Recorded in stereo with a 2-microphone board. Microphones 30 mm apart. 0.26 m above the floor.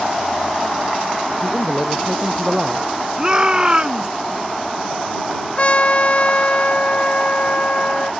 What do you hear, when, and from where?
1.4 s a man speaking: 25° right (ahead or behind)
3.2 s a shout: 25° right (ahead or behind)
5.6 s a trumpet: 40° left (ahead or behind)